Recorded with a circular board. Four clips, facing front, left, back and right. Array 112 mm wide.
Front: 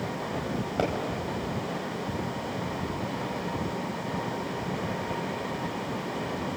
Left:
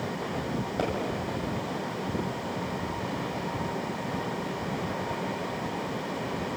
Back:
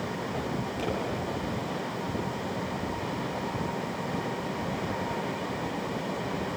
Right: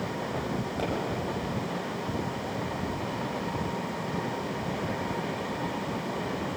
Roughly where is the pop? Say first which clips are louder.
Left 4 dB, front 7 dB; ahead.